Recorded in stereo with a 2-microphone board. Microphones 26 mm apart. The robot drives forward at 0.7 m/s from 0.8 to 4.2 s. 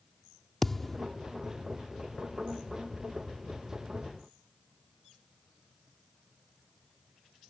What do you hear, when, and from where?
0.6 s a thud: 5° left (ahead or behind)